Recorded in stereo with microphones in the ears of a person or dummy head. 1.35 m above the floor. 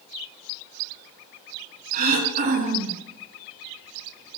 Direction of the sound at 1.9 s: 50° right (ahead or behind).